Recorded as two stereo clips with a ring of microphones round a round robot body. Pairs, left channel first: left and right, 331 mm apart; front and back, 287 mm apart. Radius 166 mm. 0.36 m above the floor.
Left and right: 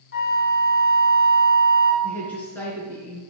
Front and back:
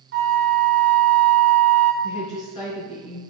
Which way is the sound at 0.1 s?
140° left.